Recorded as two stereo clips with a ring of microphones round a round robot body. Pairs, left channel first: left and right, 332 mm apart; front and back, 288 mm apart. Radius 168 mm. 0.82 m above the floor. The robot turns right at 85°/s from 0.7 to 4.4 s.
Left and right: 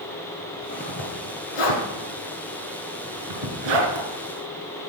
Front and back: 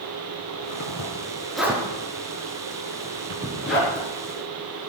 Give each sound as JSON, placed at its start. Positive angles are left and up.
{"t": 0.5, "sound": "a zipper", "azimuth_deg": 15, "distance_m": 2.5}